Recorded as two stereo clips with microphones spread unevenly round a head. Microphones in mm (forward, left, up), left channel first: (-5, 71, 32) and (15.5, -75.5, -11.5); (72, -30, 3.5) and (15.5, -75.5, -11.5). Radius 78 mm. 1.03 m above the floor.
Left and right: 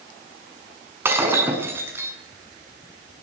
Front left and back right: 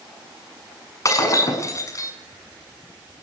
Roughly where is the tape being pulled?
No tape being pulled in this recording.